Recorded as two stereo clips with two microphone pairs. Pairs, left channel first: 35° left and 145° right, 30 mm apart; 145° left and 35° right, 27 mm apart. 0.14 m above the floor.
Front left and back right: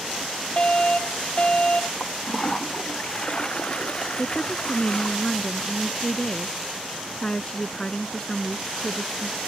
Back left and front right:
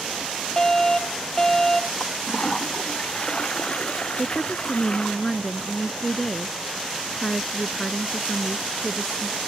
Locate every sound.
0.6 s a fire alarm: 80° left
2.0 s a toilet flushing: 95° left
4.2 s a woman speaking: 85° left